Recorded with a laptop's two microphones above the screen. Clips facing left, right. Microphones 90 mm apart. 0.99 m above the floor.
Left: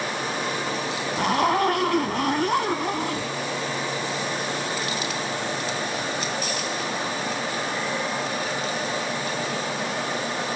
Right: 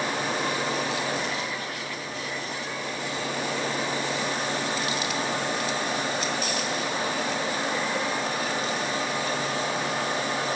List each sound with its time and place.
1.2 s a zipper: 70° left (ahead or behind)